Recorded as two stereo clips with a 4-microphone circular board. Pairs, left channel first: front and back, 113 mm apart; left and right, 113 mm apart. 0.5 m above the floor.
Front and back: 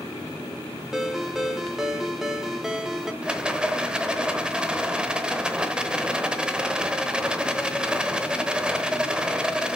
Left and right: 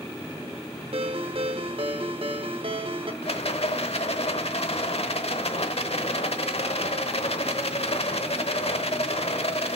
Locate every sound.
0.9 s a ringtone: 95° right, 0.9 m
3.2 s a rattle: 100° left, 1.0 m